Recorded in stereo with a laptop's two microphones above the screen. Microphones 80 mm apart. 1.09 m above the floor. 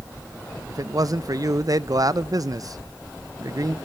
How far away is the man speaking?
About 0.7 m.